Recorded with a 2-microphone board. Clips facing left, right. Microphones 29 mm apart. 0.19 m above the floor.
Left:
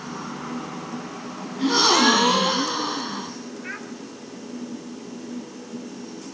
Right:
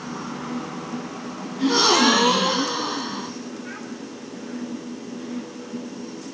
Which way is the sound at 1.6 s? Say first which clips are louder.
Even; 5° left (ahead or behind).